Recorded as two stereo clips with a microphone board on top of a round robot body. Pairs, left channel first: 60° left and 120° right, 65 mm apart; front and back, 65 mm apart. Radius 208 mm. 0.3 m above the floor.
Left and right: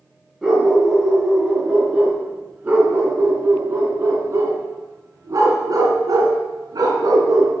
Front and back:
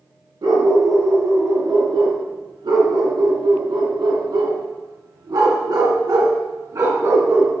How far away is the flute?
No flute in this recording.